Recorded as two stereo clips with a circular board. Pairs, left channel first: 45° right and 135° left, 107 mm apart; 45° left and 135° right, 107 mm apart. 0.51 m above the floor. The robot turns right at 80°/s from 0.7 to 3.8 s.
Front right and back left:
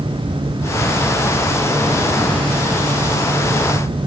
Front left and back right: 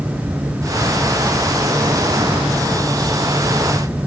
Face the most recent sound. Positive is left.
No sound to turn to.